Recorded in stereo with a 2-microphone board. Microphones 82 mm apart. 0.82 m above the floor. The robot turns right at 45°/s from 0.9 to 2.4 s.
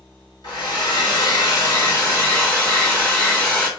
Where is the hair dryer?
85° left, 1.6 m; by 3.7 s 150° left, 1.6 m.